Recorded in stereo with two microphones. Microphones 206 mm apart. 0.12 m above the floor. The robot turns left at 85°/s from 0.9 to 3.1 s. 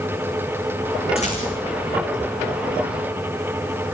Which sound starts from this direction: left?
A rattle, at 1.2 s.